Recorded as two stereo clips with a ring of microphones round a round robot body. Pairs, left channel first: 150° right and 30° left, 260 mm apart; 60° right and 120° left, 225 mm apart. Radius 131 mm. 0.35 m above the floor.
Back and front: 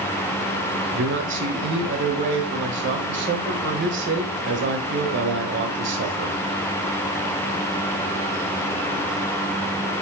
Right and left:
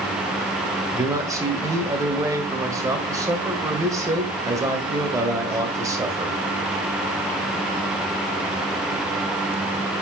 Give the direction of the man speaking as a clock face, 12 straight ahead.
10 o'clock.